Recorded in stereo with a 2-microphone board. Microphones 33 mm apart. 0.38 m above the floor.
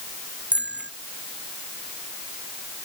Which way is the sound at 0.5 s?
45° right (ahead or behind).